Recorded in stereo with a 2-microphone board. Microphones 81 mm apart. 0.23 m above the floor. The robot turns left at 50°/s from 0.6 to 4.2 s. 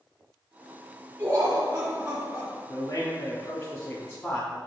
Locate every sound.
1.2 s laughter: 85° right, 1.6 m; by 2.6 s 155° right, 1.6 m
2.7 s a man speaking: 70° left, 2.5 m; by 4.6 s 5° right, 2.5 m